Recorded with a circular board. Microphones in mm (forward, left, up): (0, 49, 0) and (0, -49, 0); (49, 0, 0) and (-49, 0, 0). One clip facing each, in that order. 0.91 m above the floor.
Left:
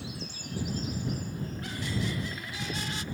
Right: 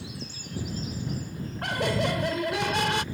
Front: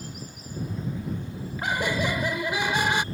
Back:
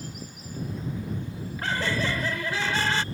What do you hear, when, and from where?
1.6 s laughter: 75° right